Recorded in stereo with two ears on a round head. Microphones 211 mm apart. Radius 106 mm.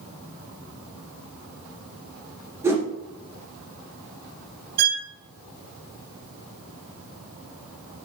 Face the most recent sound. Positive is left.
turn(degrees=-40)  # may be behind; listen again after turning